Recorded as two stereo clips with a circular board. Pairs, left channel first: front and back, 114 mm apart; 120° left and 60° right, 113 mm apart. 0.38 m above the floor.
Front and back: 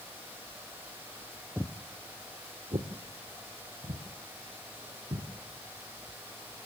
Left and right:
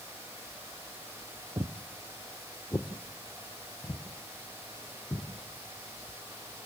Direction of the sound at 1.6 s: 100° right.